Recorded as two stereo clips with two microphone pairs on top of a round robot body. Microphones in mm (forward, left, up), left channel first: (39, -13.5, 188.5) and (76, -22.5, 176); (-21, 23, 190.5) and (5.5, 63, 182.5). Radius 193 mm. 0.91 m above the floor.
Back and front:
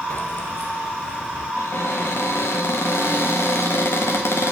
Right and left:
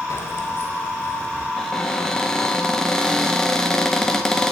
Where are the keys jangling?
150° right, 0.7 m; by 1.5 s 170° right, 2 m.